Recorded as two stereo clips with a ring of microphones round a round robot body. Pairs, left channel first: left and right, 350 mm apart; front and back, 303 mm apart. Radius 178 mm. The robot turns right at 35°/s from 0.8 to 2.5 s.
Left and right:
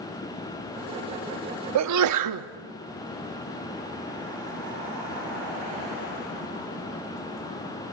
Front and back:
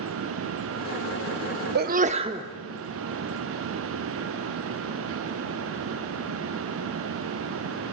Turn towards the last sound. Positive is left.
turn(degrees=-100)